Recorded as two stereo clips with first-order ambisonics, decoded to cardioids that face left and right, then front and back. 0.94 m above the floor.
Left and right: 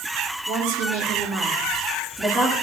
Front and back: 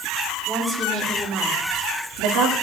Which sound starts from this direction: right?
A woman speaking, at 0.5 s.